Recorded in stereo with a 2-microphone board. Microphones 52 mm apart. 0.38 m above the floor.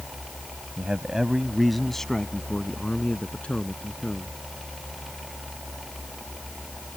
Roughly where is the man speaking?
Right.